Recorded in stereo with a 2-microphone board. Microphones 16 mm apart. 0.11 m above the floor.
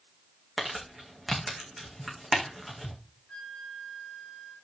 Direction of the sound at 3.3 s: 15° left (ahead or behind).